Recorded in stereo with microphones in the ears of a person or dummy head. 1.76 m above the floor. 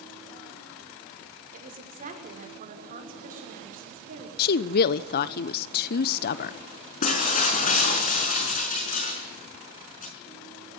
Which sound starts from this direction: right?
A woman speaking, at 1.5 s.